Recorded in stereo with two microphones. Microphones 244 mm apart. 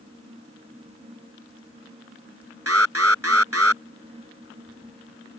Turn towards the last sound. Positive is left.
turn(degrees=-70)  # may be behind; listen again after turning